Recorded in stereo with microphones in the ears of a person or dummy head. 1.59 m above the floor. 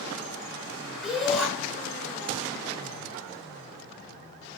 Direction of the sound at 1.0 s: Centre (ahead or behind).